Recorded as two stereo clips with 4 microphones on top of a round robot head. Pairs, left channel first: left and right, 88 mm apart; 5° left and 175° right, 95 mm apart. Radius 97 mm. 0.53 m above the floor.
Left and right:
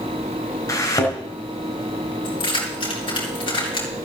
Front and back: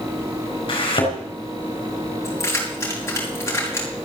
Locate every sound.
0.7 s a thud: 40° left, 4 m
2.2 s keys jangling: 65° left, 5.5 m